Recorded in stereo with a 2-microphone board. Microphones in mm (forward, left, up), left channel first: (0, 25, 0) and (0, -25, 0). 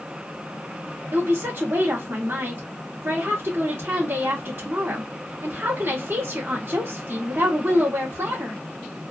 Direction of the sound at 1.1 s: 55° right (ahead or behind).